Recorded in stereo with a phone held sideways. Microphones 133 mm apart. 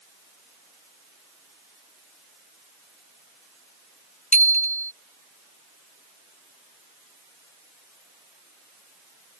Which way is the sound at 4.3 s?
60° left (ahead or behind).